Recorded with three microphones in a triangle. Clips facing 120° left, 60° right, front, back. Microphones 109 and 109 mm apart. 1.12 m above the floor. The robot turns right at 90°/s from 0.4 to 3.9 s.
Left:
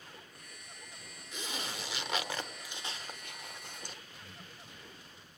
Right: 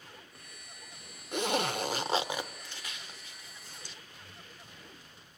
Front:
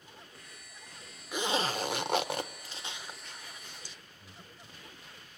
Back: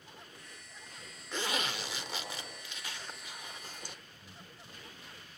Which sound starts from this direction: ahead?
Breathing, at 4.2 s.